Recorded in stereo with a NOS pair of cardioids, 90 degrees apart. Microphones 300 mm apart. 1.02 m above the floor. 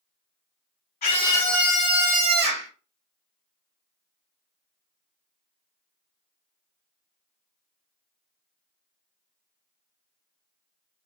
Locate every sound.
1.0 s a scream: 30° left, 0.7 m; by 2.7 s 40° right, 1.2 m